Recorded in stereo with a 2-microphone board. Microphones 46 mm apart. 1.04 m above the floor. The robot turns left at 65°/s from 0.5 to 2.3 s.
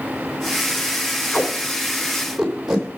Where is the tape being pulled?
55° left (ahead or behind), 2.5 m; by 2.9 s 10° right (ahead or behind), 2.5 m.